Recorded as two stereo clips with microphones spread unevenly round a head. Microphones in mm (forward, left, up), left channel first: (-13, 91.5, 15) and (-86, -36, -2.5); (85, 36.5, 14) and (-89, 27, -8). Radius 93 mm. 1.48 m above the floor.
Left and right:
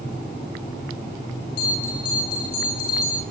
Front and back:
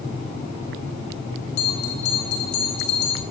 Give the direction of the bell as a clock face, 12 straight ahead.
11 o'clock.